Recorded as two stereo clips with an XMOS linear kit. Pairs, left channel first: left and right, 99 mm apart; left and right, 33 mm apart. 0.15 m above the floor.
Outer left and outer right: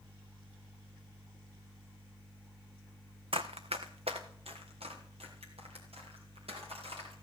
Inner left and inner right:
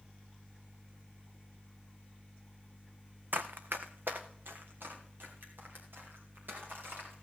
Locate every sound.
3.3 s running footsteps: 65° right (ahead or behind), 0.7 m; by 7.1 s 80° right, 5.5 m